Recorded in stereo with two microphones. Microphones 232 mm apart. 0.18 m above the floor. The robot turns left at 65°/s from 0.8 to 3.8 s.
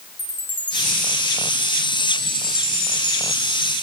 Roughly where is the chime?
Left.